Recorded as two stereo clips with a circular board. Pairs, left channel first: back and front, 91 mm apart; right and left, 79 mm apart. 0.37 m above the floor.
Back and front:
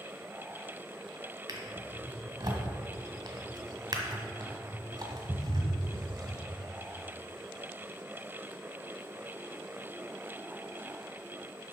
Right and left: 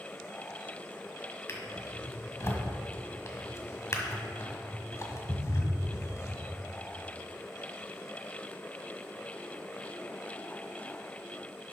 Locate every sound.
1.5 s a drawer: 35° right, 1.5 m